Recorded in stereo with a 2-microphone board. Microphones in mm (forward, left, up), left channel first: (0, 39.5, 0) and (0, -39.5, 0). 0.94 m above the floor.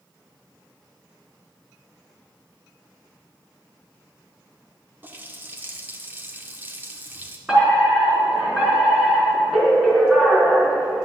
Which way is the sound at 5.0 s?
25° right (ahead or behind).